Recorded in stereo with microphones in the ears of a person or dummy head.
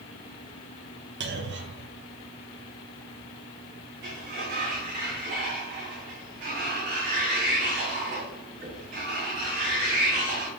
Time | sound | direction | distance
1.2 | a clunk | 55° right (ahead or behind) | 0.6 m
4.0 | a sliding door | 40° right (ahead or behind) | 1.1 m